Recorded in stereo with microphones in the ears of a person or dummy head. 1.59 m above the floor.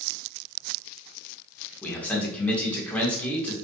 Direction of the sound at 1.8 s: 10° left (ahead or behind).